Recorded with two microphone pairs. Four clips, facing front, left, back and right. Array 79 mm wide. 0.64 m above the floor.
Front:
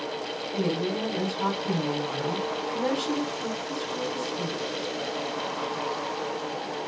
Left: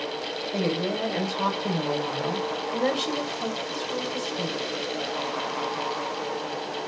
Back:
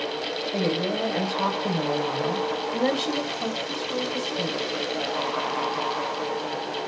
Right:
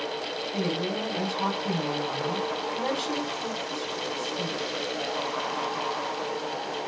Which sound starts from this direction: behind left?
A woman speaking, at 0.5 s.